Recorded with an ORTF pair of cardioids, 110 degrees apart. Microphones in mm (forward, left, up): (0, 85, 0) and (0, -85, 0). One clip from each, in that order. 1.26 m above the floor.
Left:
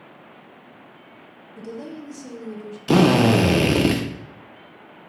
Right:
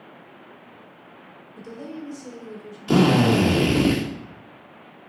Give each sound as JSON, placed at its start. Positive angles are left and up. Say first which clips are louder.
{"t": 1.6, "sound": "a woman speaking", "louder": "left 2 dB", "azimuth_deg": 15, "distance_m": 0.7}
{"t": 2.9, "sound": "a drill", "louder": "left 2 dB", "azimuth_deg": 25, "distance_m": 0.5}